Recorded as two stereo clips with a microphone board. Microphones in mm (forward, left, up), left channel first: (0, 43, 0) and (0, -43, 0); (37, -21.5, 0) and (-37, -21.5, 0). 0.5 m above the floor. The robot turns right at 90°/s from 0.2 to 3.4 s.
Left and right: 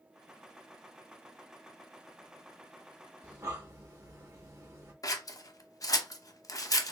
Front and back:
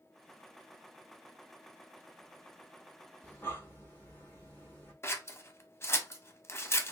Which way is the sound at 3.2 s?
65° right.